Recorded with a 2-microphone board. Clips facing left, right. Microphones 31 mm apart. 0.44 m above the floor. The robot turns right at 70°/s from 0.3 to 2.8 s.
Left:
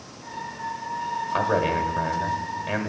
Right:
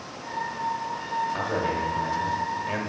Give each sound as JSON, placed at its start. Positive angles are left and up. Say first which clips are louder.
{"t": 1.3, "sound": "a man speaking", "louder": "left 4 dB", "azimuth_deg": 70, "distance_m": 1.6}